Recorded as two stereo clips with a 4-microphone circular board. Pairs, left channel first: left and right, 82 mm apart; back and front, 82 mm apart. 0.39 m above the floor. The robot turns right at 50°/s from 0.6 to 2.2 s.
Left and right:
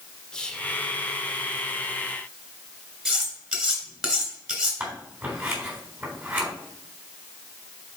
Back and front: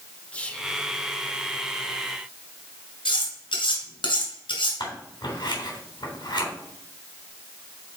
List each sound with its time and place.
0.3 s whispering: 150° left, 0.9 m; by 0.7 s 155° left, 0.9 m
3.0 s cutlery clinking: 170° right, 2.5 m
4.8 s scissors: 155° right, 3.5 m